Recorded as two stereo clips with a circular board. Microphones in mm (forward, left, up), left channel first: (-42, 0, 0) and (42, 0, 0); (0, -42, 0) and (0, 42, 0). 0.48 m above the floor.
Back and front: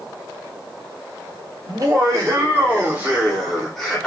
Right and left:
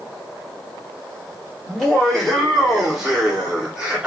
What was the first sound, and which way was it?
Laughter, 5° right.